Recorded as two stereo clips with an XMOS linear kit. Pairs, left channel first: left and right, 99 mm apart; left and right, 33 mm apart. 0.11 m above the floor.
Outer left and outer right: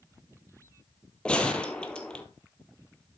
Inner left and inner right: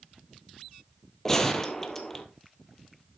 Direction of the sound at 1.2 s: 10° left (ahead or behind).